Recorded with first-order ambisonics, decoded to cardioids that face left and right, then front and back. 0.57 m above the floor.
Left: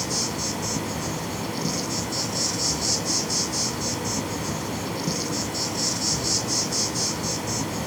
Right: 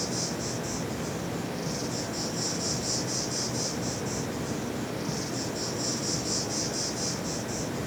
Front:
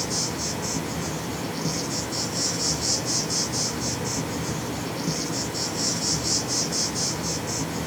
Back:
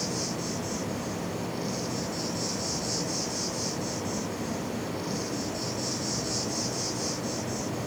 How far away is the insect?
About 5.5 m.